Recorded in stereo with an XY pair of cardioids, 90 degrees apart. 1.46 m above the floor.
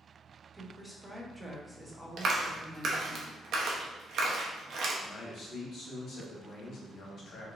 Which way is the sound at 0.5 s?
10° right.